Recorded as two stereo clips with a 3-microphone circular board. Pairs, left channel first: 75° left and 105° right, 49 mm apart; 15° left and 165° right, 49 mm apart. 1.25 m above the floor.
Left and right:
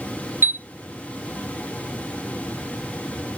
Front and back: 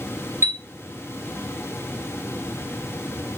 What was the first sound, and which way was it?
A chime, 140° right.